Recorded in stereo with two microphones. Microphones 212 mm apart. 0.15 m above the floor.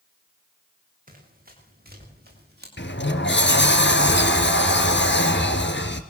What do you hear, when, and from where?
1.1 s running footsteps: 40° right (ahead or behind), 10 m; by 2.7 s 50° right (ahead or behind), 11 m
2.8 s a sliding door: 60° left (ahead or behind), 1.8 m